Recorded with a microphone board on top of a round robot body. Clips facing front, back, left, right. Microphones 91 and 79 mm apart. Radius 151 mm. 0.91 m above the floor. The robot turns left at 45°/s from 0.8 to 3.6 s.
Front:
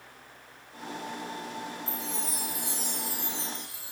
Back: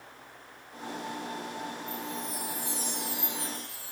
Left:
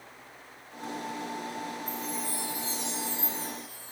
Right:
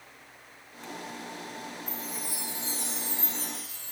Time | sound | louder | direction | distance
1.9 | a chime | even, left 4 dB | 5° left | 3 m